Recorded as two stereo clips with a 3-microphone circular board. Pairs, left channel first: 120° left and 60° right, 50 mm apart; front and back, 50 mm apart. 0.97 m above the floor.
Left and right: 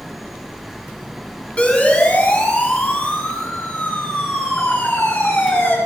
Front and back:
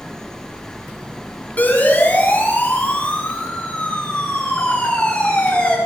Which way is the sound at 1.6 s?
55° left.